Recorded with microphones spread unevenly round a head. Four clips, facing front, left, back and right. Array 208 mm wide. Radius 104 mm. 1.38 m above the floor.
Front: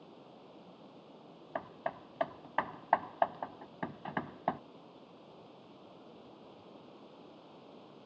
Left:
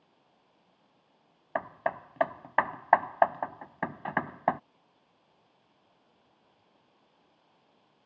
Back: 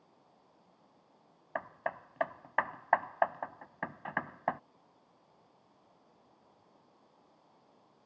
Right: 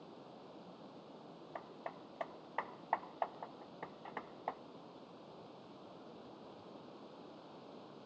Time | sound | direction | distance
0.0 | running water | 45° right | ?
1.6 | hammering | 75° left | ?